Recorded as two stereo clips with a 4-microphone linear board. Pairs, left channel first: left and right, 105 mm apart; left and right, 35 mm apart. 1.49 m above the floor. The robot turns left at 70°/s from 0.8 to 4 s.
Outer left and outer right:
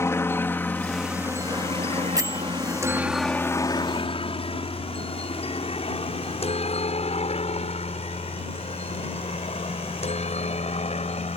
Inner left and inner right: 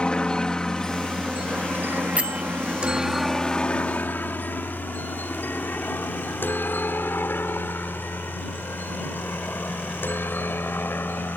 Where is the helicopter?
25° left (ahead or behind); by 11.4 s 80° left.